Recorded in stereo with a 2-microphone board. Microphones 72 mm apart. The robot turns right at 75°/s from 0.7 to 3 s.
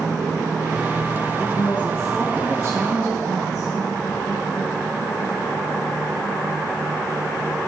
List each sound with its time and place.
1.4 s a woman speaking: 115° left, 4 m; by 3.8 s 125° right, 4 m